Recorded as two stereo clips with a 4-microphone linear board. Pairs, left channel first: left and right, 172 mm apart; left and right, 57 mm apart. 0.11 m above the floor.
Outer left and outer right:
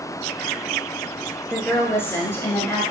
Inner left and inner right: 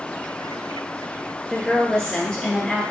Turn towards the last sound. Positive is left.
turn(degrees=15)  # may be behind; listen again after turning